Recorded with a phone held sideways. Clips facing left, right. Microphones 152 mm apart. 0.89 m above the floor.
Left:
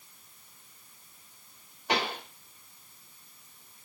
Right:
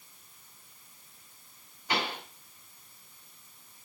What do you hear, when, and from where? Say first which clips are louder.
1.9 s a pop: left 2 dB; 70° left (ahead or behind), 2.5 m